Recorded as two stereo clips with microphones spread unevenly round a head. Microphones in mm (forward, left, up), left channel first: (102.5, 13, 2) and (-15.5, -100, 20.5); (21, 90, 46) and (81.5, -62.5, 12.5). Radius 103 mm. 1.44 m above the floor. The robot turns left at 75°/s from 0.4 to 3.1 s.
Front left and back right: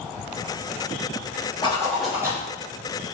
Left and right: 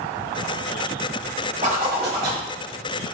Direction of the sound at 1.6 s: 15° right.